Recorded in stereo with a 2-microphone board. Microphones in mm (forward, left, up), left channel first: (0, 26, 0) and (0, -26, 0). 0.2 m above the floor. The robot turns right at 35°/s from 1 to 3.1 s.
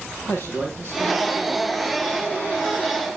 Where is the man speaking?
60° left (ahead or behind), 4.5 m; by 1.6 s 40° left (ahead or behind), 4.5 m.